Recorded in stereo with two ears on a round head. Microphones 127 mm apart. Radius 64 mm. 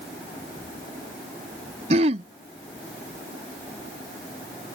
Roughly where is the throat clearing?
Right.